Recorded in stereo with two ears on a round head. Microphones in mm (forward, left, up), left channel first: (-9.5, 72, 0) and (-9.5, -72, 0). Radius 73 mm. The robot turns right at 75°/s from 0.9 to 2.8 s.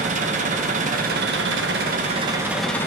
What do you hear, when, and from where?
0.0 s an engine running: 130° right, 1.1 m; by 2.9 s 15° left, 1.1 m